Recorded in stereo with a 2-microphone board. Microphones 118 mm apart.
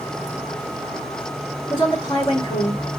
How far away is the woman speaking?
About 4 m.